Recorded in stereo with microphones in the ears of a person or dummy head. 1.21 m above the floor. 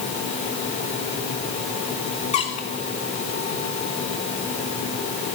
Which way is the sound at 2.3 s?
40° left (ahead or behind).